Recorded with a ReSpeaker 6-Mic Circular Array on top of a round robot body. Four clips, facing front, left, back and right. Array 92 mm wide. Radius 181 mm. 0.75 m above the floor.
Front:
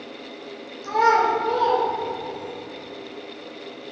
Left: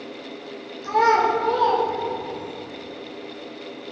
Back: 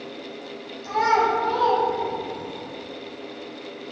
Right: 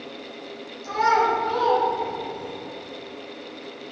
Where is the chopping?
I don't hear chopping.